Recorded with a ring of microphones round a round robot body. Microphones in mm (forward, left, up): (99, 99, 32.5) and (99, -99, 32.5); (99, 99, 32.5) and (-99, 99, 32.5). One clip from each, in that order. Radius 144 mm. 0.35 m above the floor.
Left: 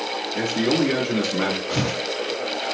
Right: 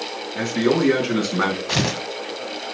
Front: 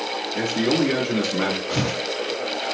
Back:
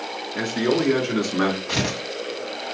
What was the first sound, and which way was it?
A man speaking, 110° right.